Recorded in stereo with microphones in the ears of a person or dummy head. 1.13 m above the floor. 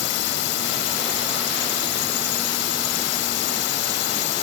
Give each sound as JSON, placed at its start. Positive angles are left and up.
{"t": 0.0, "sound": "a drone", "side_deg": 65}